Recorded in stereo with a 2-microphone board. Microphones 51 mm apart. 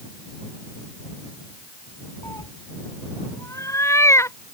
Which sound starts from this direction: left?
A cat meowing, at 2.2 s.